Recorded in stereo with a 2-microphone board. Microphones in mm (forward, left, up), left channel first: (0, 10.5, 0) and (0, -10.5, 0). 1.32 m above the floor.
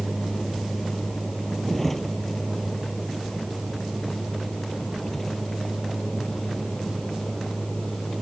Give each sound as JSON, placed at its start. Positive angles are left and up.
{"t": 0.0, "sound": "a vehicle", "side_deg": 10}